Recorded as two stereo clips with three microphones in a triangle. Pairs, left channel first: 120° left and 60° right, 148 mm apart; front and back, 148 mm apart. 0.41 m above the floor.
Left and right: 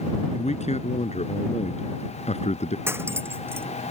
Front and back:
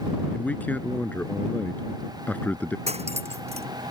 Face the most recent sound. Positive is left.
turn(degrees=-135)